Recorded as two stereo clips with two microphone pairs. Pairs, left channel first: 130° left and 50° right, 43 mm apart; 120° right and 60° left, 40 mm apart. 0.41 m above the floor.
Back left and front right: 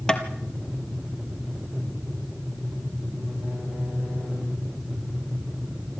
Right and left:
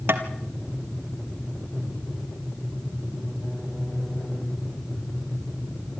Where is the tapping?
60° left, 1.6 m.